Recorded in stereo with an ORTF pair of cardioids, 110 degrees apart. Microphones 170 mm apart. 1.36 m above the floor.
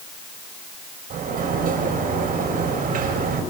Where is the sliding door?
55° right, 6.5 m.